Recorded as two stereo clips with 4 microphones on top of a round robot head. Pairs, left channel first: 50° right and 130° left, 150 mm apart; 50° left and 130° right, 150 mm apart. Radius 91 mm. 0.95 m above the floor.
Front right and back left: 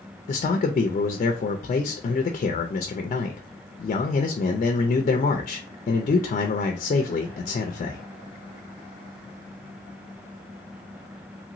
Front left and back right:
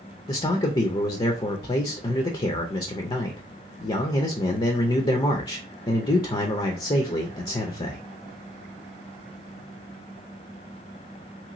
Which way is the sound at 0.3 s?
10° right.